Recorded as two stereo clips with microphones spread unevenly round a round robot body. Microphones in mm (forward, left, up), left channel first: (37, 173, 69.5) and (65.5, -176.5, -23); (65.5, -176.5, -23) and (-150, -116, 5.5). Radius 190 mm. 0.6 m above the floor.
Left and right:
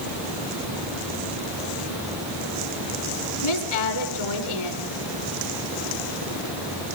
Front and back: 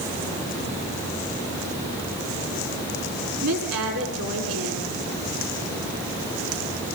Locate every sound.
3.4 s a woman speaking: 125° left, 7 m